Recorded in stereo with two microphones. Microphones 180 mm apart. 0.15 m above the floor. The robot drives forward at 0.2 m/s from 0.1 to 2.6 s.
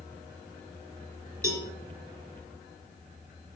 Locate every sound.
1.4 s a cowbell: 15° right (ahead or behind), 1.9 m